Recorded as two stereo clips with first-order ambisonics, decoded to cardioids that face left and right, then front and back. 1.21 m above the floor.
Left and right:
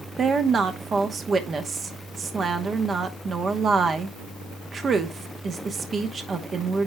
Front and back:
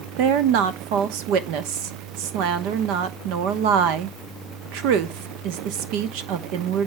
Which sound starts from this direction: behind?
A woman speaking, at 0.2 s.